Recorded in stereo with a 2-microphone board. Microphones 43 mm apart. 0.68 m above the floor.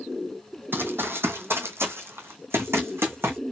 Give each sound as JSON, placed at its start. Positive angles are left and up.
{"t": 0.7, "sound": "running footsteps", "side_deg": -55, "distance_m": 1.3}